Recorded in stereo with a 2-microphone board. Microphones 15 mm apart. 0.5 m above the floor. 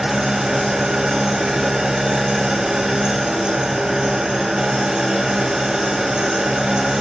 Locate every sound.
0.0 s an engine running: 70° right (ahead or behind), 1.8 m